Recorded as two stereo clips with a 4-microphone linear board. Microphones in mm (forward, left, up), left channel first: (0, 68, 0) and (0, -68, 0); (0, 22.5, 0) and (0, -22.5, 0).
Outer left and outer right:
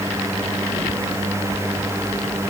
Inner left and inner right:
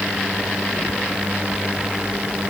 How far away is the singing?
I don't hear singing.